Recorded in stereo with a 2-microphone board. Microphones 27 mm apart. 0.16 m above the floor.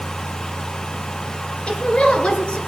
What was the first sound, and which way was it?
A woman speaking, 40° left (ahead or behind).